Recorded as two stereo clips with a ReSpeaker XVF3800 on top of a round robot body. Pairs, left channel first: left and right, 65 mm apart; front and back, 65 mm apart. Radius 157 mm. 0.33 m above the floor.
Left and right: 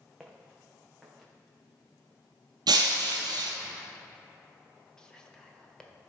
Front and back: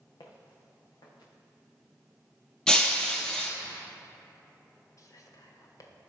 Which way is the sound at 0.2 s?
Straight ahead.